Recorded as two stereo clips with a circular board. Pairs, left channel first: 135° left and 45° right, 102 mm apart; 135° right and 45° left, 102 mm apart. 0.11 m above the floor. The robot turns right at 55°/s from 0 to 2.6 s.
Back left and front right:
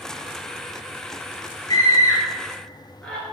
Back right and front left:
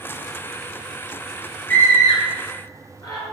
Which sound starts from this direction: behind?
A scream, at 1.7 s.